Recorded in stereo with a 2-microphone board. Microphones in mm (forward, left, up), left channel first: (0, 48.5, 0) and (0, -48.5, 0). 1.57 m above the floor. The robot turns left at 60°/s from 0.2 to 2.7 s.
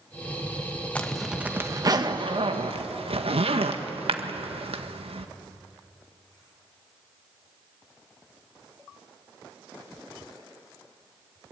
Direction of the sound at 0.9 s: 15° left (ahead or behind).